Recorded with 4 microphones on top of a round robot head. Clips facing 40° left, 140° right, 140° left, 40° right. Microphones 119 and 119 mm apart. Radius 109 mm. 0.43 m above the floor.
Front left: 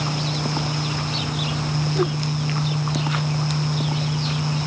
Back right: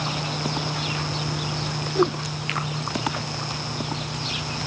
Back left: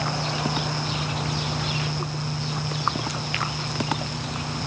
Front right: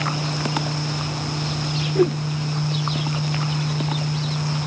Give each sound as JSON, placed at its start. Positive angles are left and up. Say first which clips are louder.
{"t": 1.9, "sound": "a whoosh", "louder": "back right 3 dB, front right 13 dB", "azimuth_deg": -60}